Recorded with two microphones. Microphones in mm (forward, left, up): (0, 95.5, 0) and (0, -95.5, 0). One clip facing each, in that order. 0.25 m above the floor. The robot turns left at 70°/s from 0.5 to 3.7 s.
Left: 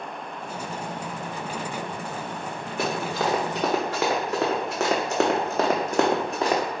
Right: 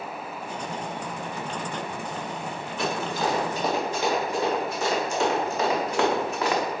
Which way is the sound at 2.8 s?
55° left (ahead or behind).